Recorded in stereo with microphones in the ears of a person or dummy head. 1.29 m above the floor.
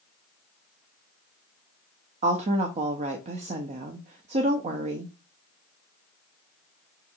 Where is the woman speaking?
40° right (ahead or behind), 0.5 m.